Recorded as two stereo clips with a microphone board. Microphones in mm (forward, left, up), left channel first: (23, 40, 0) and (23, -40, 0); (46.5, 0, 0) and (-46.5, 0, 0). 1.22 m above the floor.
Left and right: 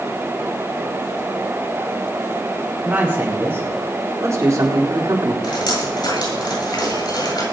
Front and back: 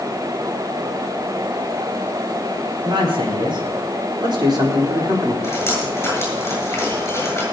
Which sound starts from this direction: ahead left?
Dripping, at 5.4 s.